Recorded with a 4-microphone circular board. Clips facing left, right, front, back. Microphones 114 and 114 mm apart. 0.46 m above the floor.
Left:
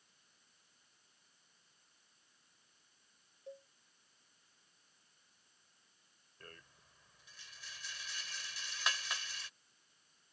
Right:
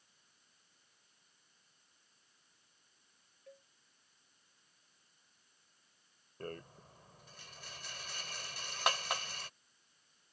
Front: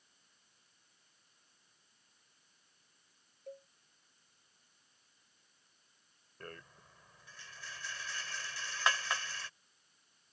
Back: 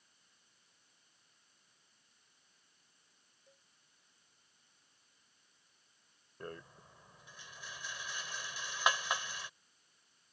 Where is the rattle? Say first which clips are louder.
Right 14 dB, back 4 dB; 110° right.